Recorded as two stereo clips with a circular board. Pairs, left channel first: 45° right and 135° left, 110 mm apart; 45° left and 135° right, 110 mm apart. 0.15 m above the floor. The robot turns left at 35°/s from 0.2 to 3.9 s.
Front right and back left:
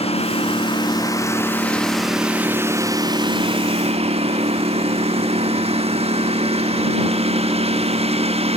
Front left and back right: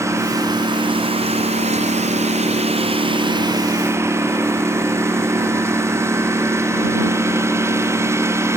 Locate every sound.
0.0 s a lawn mower: 70° right; by 8.6 s 160° left